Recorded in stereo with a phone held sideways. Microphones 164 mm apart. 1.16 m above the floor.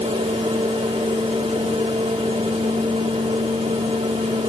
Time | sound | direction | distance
0.0 | a fan | 45° right (ahead or behind) | 4 m